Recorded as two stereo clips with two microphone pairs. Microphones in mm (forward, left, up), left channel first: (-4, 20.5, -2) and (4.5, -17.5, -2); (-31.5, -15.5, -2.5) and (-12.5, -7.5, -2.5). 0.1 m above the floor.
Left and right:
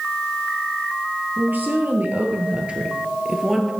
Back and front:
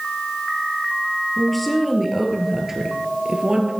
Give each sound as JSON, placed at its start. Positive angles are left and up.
{"t": 1.4, "sound": "a woman speaking", "azimuth_deg": -85, "distance_m": 1.9}